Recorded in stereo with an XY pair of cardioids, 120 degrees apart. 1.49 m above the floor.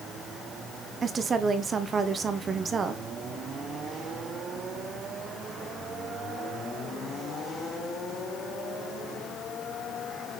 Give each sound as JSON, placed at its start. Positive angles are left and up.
{"t": 1.0, "sound": "a woman speaking", "azimuth_deg": -35, "distance_m": 1.2}